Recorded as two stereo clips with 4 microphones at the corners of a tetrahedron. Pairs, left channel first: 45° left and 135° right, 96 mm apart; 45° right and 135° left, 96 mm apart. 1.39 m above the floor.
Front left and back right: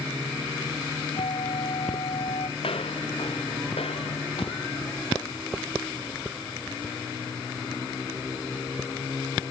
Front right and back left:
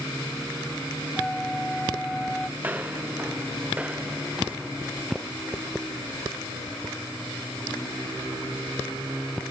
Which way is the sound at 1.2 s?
40° left.